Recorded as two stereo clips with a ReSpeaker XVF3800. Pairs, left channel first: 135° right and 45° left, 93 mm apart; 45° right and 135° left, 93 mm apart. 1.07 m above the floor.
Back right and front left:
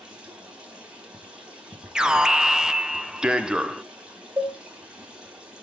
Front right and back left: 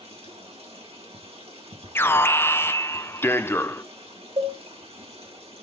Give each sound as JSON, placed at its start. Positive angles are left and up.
{"t": 0.0, "sound": "running water", "azimuth_deg": 125, "distance_m": 4.0}
{"t": 1.9, "sound": "an alarm", "azimuth_deg": -30, "distance_m": 0.7}
{"t": 4.4, "sound": "a cowbell", "azimuth_deg": 115, "distance_m": 3.0}